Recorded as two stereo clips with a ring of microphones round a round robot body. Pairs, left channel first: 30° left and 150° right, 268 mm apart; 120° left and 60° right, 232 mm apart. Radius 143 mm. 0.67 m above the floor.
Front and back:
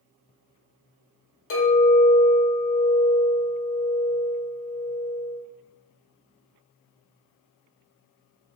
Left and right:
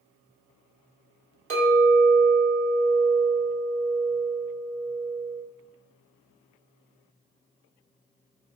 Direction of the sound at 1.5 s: 15° right.